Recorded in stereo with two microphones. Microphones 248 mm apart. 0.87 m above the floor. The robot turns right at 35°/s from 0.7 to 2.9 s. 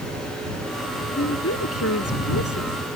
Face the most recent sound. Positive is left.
turn(degrees=120)